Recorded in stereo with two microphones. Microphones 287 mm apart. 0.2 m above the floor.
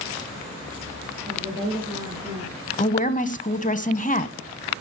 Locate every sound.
1.3 s a woman speaking: 20° right (ahead or behind), 3.5 m; by 2.5 s 10° right (ahead or behind), 4 m
2.8 s a woman speaking: 25° left (ahead or behind), 1.1 m